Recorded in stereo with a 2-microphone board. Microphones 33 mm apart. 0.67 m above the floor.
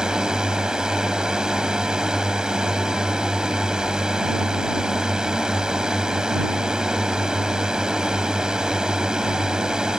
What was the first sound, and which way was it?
A drone, 20° right (ahead or behind).